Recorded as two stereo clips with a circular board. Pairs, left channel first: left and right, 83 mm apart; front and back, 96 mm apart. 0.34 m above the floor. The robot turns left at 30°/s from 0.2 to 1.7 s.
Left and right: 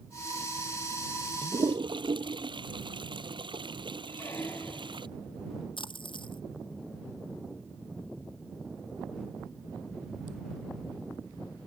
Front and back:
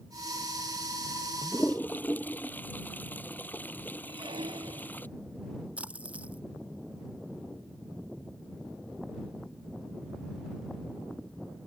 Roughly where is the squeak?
Behind left.